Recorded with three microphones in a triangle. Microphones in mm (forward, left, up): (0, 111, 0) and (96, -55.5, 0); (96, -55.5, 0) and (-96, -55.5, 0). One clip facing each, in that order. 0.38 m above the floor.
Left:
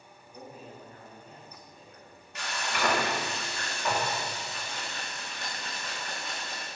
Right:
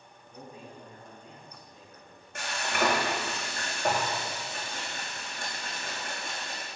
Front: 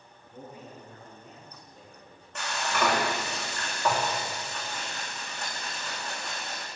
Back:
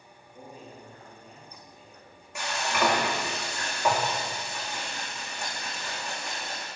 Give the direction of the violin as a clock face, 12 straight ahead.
I don't hear a violin.